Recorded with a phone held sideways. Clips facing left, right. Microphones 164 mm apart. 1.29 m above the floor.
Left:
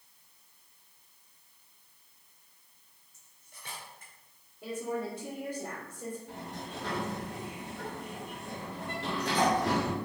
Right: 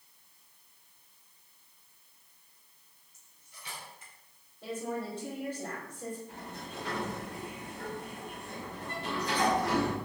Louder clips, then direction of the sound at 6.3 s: Left 2 dB; 75° left (ahead or behind).